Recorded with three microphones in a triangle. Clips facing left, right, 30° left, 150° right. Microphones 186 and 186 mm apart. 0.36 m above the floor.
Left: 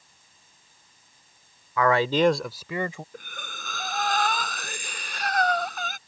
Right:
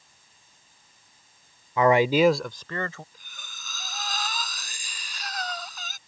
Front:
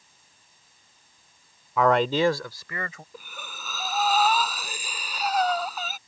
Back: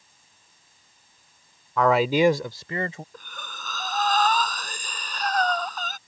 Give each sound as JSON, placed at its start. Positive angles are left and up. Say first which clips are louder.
{"t": 1.8, "sound": "a man speaking", "louder": "right 2 dB, back 1 dB", "azimuth_deg": -55}
{"t": 3.1, "sound": "breathing", "louder": "left 12 dB, even", "azimuth_deg": 110}